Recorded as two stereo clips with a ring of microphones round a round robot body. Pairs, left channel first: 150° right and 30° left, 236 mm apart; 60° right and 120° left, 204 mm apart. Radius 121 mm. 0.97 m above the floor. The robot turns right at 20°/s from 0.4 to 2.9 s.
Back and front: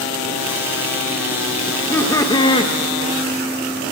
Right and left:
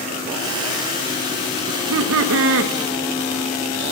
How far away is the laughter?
About 0.7 m.